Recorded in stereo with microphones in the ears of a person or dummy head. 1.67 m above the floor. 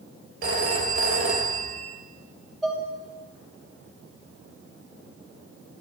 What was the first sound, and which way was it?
A phone ringing, 55° right (ahead or behind).